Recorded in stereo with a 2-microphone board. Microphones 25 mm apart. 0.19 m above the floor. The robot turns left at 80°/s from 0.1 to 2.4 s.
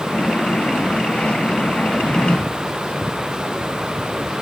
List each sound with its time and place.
1.9 s a drawer: straight behind; by 2.4 s 145° left